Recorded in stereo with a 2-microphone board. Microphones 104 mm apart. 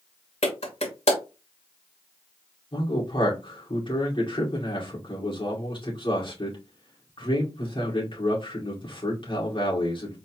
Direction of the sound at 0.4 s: 80° left.